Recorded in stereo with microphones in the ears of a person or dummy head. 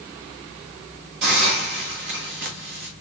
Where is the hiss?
50° right (ahead or behind), 1.3 m.